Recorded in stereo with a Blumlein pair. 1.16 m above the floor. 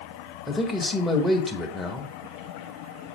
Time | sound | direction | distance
0.5 | a man speaking | 5° left | 1.2 m